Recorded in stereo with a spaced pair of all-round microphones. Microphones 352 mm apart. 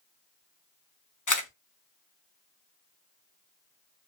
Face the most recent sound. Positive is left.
turn(degrees=55)  # may be behind; listen again after turning